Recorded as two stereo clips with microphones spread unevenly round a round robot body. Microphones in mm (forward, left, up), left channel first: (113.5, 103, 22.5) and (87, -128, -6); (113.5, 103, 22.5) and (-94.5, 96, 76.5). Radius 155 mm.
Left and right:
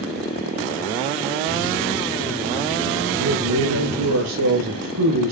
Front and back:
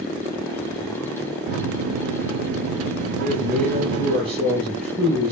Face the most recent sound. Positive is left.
turn(degrees=-120)